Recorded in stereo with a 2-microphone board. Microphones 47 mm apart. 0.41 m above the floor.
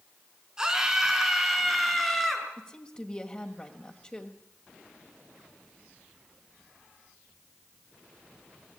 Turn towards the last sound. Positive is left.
turn(degrees=25)  # may be behind; listen again after turning